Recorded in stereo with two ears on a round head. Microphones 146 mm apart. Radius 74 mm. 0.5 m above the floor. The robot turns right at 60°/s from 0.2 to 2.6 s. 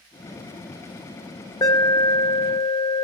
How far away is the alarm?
About 1.1 m.